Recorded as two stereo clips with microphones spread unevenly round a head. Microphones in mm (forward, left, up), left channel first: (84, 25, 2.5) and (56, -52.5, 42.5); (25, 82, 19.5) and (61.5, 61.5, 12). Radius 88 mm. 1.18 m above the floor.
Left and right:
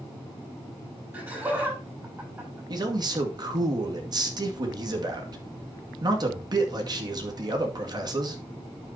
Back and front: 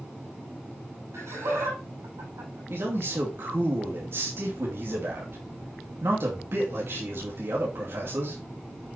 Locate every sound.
1.1 s laughter: 45° right, 7 m
2.7 s a man speaking: 70° right, 2 m